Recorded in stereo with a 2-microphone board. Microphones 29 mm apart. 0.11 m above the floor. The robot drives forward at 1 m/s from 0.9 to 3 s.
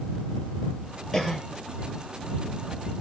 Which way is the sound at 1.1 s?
15° left (ahead or behind).